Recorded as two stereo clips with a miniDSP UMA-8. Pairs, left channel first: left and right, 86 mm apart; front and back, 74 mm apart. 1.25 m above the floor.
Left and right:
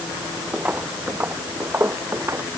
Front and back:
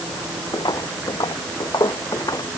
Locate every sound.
0.5 s footsteps: 15° right; by 2.5 s 30° right